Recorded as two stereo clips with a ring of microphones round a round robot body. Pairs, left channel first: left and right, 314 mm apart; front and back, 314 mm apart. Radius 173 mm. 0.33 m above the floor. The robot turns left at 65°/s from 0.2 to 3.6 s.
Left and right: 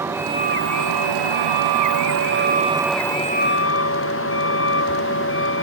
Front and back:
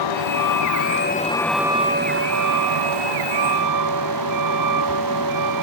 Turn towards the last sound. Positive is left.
turn(degrees=140)